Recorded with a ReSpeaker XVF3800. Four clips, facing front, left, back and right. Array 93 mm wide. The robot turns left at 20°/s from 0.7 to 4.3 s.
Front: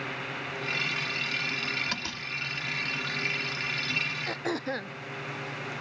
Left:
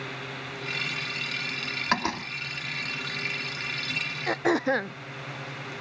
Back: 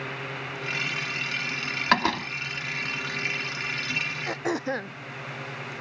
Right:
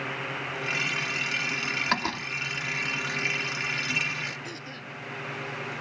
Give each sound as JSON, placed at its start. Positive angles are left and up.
{"t": 1.9, "sound": "a door slam", "azimuth_deg": 175}
{"t": 4.3, "sound": "throat clearing", "azimuth_deg": 105}